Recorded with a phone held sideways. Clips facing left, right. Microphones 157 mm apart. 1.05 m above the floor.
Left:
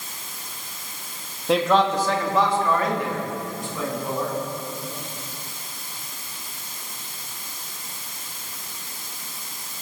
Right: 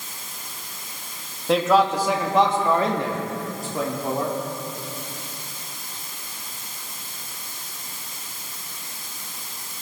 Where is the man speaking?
Centre (ahead or behind), 1.7 m; by 4.4 s 45° right (ahead or behind), 3 m.